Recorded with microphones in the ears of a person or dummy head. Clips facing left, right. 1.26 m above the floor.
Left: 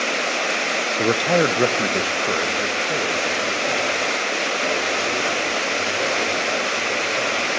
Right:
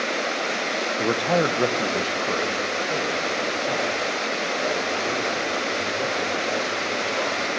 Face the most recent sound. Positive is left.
turn(degrees=20)  # may be behind; listen again after turning